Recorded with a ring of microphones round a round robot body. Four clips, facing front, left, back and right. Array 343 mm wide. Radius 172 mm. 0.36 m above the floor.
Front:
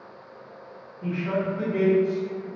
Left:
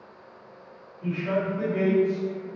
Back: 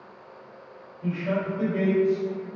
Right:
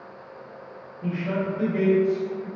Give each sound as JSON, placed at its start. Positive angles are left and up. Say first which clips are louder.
{"t": 1.0, "sound": "a man speaking", "louder": "even, front 1 dB", "azimuth_deg": 15, "distance_m": 1.6}